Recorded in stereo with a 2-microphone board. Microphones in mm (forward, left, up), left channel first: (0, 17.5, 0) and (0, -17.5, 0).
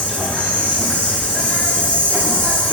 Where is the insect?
35° left (ahead or behind), 1.6 m.